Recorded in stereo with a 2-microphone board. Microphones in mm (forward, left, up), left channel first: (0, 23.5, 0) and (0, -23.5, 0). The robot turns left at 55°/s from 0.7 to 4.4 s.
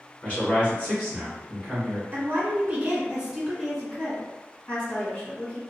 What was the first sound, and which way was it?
A man speaking, 35° left.